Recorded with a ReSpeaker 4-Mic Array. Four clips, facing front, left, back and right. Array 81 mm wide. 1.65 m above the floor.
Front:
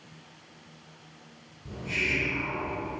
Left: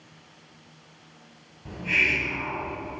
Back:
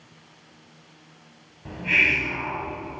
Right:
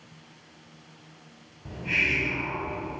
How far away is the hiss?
About 3 m.